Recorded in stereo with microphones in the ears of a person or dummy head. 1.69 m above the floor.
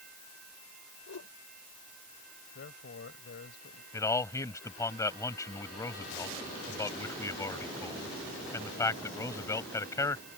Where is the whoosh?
65° left (ahead or behind).